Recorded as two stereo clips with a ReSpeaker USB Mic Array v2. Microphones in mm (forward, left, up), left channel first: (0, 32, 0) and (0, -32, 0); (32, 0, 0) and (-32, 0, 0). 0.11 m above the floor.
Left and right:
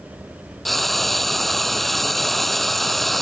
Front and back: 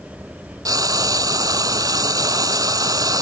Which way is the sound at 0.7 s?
175° left.